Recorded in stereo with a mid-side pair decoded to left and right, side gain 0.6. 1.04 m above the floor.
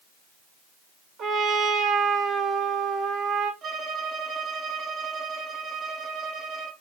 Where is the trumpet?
45° right, 2 m.